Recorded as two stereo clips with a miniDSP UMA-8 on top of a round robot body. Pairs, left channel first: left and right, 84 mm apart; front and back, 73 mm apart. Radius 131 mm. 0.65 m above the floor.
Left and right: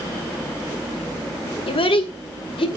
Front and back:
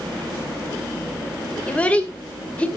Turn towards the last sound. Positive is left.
turn(degrees=75)